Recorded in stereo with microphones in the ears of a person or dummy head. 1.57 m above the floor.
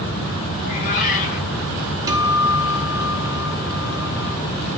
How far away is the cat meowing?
About 7.5 m.